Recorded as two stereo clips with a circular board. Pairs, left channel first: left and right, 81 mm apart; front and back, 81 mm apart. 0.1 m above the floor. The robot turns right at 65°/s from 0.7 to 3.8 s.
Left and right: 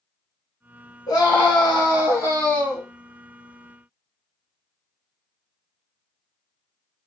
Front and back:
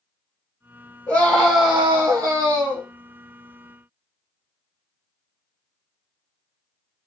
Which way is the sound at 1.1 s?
60° left.